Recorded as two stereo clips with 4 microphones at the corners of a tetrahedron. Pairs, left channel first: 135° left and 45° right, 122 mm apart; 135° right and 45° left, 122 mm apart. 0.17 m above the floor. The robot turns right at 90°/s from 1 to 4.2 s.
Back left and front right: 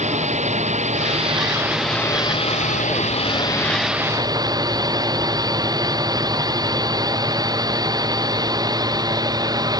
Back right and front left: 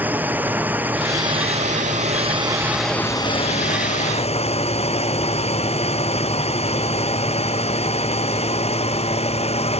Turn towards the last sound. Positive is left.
turn(degrees=-105)